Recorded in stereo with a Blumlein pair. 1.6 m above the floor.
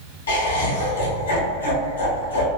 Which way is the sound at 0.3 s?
65° left.